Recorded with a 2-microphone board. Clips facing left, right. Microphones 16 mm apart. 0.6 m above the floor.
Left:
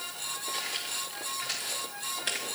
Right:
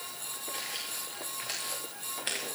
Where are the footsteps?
10° left (ahead or behind), 3.5 m; by 2.5 s 5° right (ahead or behind), 4.5 m.